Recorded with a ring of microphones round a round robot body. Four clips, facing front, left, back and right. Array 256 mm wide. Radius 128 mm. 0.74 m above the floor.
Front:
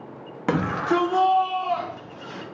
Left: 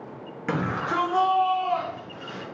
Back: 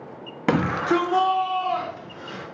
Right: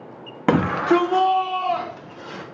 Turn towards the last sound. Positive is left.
turn(degrees=-95)